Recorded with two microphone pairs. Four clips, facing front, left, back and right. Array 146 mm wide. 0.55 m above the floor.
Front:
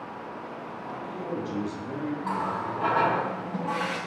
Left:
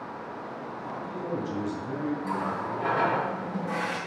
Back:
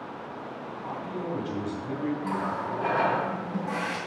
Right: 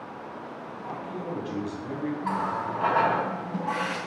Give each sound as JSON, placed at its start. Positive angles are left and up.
{"t": 0.8, "sound": "a man speaking", "azimuth_deg": -140, "distance_m": 3.5}
{"t": 2.2, "sound": "a running tap", "azimuth_deg": -70, "distance_m": 3.0}